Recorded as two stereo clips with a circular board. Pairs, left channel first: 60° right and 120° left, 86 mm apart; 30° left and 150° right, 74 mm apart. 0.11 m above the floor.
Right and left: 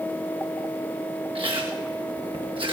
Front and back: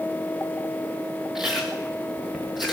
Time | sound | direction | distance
1.4 | chewing | 125° left | 3.5 m